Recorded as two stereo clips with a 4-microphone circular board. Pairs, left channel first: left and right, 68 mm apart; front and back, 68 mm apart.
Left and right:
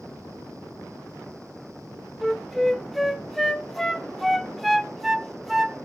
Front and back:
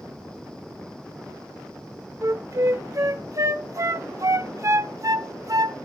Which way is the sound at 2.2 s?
Straight behind.